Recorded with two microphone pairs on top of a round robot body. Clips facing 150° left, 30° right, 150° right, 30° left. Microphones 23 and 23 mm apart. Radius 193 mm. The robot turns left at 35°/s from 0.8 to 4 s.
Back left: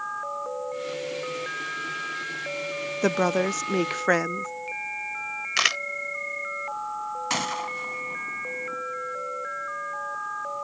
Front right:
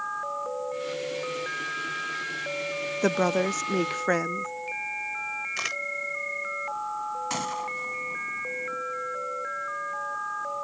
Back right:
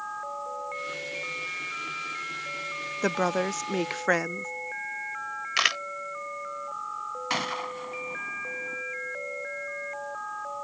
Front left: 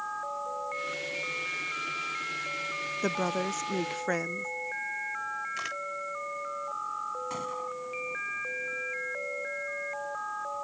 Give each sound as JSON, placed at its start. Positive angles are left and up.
{"t": 3.0, "sound": "a woman speaking", "azimuth_deg": -120}
{"t": 5.6, "sound": "a camera shutter", "azimuth_deg": -165}
{"t": 7.3, "sound": "a gunshot", "azimuth_deg": -145}